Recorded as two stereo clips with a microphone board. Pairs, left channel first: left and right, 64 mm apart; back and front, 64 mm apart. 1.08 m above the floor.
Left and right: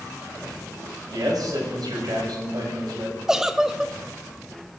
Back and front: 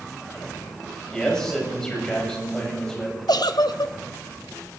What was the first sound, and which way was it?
A man speaking, 100° right.